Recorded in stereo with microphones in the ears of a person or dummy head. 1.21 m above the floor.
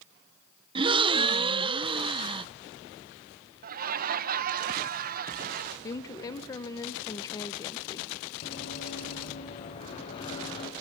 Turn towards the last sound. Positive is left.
turn(degrees=30)  # may be behind; listen again after turning